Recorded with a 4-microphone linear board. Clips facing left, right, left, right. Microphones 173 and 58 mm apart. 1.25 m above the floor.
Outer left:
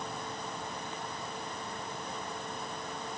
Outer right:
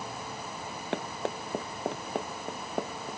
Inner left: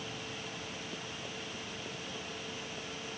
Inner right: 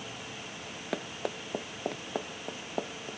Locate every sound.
0.9 s running footsteps: 75° right (ahead or behind); by 3.2 s 85° right